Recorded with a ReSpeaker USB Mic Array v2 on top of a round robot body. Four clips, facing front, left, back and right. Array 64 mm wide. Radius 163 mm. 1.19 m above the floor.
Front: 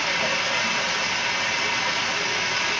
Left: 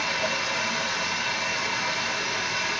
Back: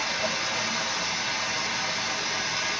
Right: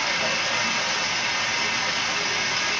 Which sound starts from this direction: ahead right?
Running water, at 0.0 s.